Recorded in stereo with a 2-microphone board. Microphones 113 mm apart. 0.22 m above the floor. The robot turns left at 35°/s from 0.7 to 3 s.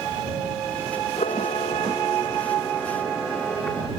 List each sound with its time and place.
1.2 s a camera shutter: 75° left; by 3.9 s 10° left